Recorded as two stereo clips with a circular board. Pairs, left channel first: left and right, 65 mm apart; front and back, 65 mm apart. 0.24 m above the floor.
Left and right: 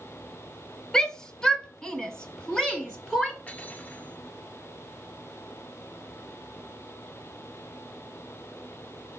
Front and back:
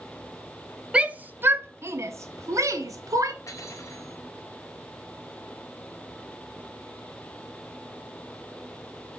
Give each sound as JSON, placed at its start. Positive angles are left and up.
{"t": 0.9, "sound": "a shout", "azimuth_deg": 145, "distance_m": 0.9}
{"t": 3.5, "sound": "cutlery clinking", "azimuth_deg": 30, "distance_m": 2.0}